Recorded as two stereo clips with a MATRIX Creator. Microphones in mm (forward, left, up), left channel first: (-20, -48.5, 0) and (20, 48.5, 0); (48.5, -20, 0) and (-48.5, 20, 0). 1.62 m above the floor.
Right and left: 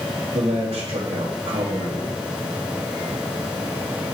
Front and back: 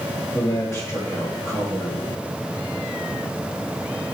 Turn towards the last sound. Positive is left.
turn(degrees=40)